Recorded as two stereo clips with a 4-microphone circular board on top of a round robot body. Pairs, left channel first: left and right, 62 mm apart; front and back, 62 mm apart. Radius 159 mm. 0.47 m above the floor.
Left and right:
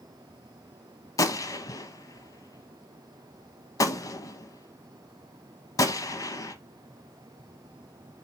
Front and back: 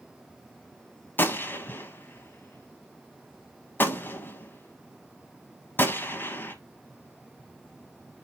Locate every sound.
1.2 s a gunshot: 60° left, 0.7 m